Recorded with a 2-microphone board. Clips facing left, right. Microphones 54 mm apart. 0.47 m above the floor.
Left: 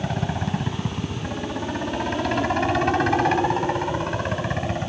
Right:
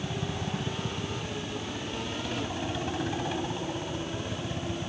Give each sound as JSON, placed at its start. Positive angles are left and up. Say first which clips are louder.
{"t": 0.0, "sound": "a helicopter", "louder": "left 7 dB", "side_deg": 65}